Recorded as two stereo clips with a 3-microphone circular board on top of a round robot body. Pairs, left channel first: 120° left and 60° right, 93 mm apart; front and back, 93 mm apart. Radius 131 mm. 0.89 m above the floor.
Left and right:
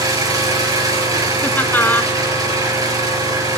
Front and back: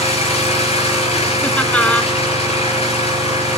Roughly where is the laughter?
Ahead left.